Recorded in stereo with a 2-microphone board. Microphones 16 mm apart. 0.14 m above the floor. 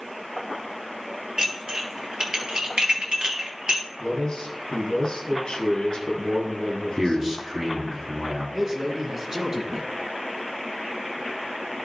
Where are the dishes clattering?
60° right (ahead or behind), 1.6 m.